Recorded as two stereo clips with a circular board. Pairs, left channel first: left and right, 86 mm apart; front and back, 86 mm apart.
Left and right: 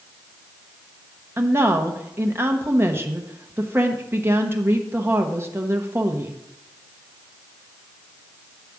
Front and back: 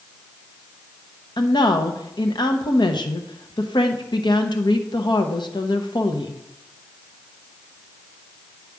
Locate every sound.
1.4 s a woman speaking: 30° right, 0.9 m